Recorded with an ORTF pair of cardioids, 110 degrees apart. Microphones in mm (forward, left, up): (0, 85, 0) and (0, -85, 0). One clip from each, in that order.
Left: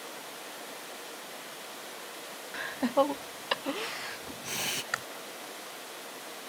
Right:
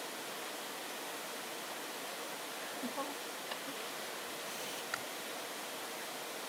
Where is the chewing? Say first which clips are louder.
Left 5 dB; 40° left.